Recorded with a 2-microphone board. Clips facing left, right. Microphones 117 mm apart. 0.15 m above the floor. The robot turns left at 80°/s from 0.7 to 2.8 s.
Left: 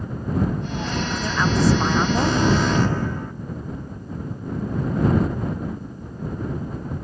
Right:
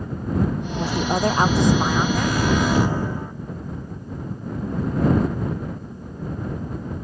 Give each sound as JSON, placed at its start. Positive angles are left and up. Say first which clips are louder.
{"t": 0.8, "sound": "a woman speaking", "louder": "right 8 dB", "azimuth_deg": -90}
{"t": 2.2, "sound": "an alarm", "louder": "left 1 dB", "azimuth_deg": 40}